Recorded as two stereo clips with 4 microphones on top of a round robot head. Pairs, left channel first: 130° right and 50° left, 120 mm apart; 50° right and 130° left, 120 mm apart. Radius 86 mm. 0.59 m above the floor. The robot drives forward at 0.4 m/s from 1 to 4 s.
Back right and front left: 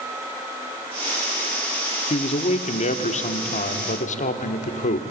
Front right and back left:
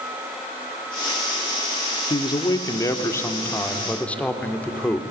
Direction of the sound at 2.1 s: 100° right.